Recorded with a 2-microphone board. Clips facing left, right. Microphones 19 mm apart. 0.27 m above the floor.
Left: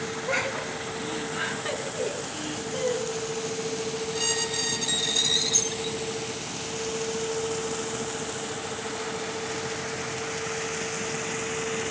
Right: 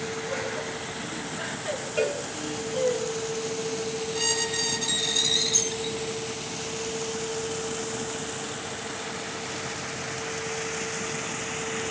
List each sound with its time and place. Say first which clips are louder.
0.3 s laughter: left 3 dB; 45° left (ahead or behind), 2.5 m; by 3.0 s 10° left (ahead or behind), 3.5 m
2.0 s a cowbell: right 8 dB; 85° right, 4 m
4.1 s a squeak: right 1 dB; centre (ahead or behind), 2 m